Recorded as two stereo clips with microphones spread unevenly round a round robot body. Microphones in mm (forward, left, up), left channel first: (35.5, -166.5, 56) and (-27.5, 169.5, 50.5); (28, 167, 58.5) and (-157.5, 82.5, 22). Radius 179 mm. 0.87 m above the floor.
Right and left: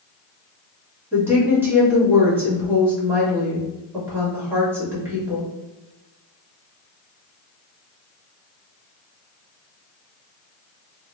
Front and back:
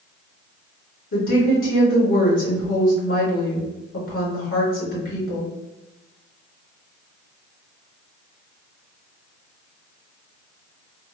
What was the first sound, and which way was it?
A woman speaking, 20° left.